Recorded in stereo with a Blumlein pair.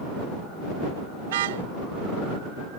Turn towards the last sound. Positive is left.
turn(degrees=-55)